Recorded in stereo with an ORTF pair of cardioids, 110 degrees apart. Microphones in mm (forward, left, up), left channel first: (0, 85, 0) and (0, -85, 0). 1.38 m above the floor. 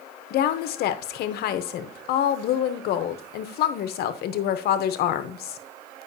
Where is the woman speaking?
70° left, 0.8 m.